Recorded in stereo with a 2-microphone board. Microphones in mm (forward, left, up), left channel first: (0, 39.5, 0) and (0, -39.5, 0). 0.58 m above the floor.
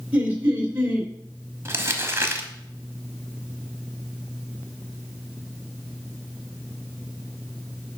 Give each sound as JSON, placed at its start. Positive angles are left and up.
{"t": 0.1, "sound": "laughter", "side_deg": -20, "distance_m": 2.0}
{"t": 1.6, "sound": "crumpling", "side_deg": -30, "distance_m": 1.0}